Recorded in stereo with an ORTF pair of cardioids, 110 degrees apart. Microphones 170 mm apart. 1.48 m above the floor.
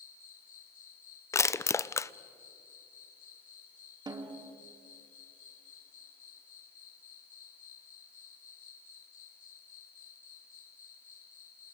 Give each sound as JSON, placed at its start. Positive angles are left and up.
{"t": 0.0, "sound": "an insect", "azimuth_deg": 50, "distance_m": 5.0}
{"t": 1.3, "sound": "crushing", "azimuth_deg": 15, "distance_m": 0.5}
{"t": 4.1, "sound": "a snare drum", "azimuth_deg": -25, "distance_m": 2.5}